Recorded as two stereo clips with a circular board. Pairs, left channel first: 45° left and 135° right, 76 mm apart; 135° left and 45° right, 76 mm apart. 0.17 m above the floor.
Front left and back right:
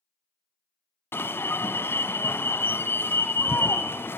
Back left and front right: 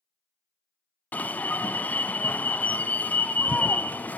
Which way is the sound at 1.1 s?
80° left.